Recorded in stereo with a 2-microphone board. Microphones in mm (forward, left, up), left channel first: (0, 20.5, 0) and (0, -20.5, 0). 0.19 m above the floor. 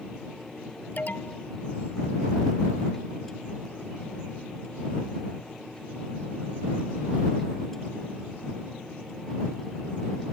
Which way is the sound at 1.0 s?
45° left (ahead or behind).